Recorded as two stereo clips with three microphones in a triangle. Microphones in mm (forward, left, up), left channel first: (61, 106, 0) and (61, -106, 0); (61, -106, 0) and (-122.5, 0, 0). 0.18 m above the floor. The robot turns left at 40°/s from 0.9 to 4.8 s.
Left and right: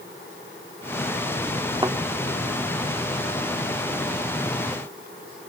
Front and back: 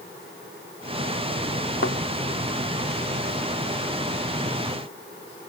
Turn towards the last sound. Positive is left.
turn(degrees=-140)